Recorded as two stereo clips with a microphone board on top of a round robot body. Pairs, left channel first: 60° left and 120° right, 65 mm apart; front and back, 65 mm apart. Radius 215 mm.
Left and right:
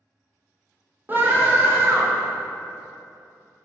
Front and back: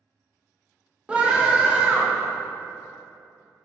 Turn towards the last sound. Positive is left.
turn(degrees=-120)